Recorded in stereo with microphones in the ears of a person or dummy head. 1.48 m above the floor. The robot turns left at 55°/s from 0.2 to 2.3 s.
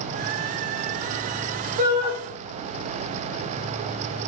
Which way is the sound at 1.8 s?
40° right (ahead or behind).